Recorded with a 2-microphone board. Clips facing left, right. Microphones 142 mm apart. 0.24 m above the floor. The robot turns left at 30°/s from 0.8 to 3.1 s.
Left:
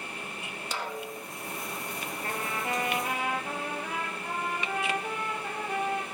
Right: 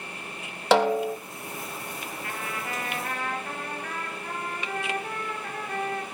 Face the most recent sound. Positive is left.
turn(degrees=10)  # may be behind; listen again after turning